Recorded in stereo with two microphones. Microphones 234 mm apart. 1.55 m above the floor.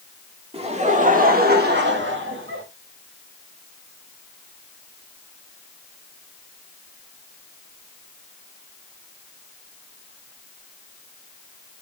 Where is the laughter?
25° right (ahead or behind), 2.5 m; by 2.6 s 60° right (ahead or behind), 3 m.